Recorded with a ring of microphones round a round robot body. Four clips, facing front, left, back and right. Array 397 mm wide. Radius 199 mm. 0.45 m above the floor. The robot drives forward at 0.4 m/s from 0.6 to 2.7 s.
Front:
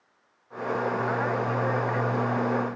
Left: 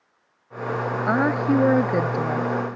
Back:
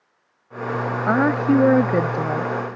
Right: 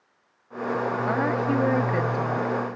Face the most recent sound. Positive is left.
turn(degrees=165)